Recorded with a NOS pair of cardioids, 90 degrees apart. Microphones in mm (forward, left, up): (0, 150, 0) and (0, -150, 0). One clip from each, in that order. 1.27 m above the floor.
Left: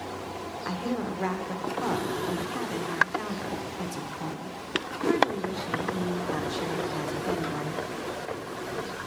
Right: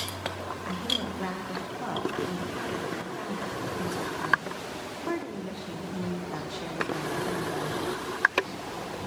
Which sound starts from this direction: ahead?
A woman speaking, at 0.7 s.